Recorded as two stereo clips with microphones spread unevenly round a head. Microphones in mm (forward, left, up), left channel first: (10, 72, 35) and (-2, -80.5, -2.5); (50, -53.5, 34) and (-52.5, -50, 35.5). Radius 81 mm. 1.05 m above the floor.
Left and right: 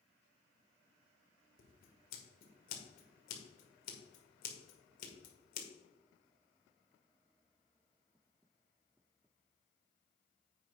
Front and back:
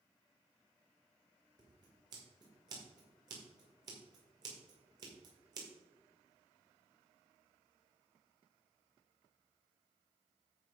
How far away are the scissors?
About 2.0 m.